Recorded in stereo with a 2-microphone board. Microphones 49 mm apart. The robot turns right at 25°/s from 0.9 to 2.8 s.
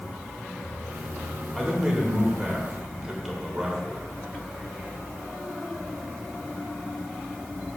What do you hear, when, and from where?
1.6 s a man speaking: centre (ahead or behind), 1.5 m; by 4.0 s 15° right (ahead or behind), 1.5 m